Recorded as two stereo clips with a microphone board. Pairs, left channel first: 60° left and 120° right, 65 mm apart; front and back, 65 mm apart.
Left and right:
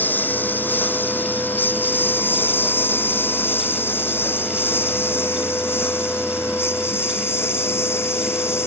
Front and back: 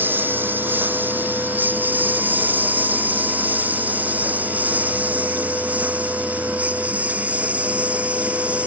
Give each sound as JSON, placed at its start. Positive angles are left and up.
{"t": 0.0, "sound": "a lawn mower", "azimuth_deg": 120}